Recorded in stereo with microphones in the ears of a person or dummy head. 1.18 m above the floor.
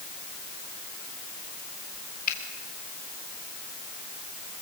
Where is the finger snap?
50° left (ahead or behind), 3.5 m.